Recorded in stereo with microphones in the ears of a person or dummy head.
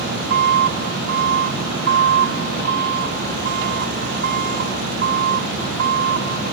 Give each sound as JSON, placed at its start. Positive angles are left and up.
{"t": 0.0, "sound": "an engine running", "side_deg": -50}